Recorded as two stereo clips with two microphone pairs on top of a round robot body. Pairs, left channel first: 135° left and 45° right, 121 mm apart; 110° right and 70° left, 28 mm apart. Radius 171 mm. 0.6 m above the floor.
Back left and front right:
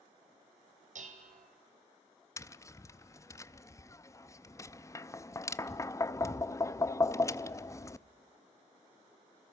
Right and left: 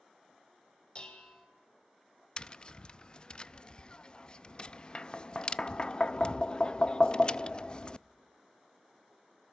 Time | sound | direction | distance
0.9 | dishes clattering | 55° right | 3 m
2.4 | tapping | 165° right | 0.6 m